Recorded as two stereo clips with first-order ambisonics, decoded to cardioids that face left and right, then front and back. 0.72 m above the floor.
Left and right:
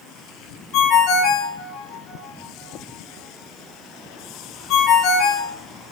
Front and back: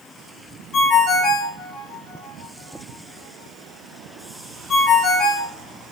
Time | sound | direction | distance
0.7 | a ringtone | 55° left | 1.0 m